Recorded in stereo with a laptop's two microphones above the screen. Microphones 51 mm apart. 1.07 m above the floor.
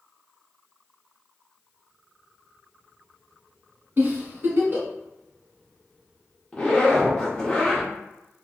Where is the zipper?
20° left (ahead or behind), 0.7 m.